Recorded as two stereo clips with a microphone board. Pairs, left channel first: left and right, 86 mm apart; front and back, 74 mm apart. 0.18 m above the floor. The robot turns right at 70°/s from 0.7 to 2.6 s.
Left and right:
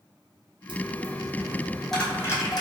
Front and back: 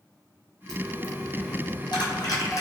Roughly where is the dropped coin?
Right.